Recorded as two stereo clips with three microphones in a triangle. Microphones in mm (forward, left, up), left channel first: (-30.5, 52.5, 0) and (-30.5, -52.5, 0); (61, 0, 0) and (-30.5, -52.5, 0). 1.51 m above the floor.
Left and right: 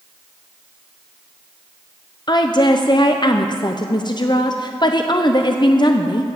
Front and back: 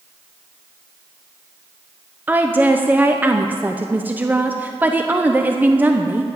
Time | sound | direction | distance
2.3 | a woman speaking | 140° left | 0.7 m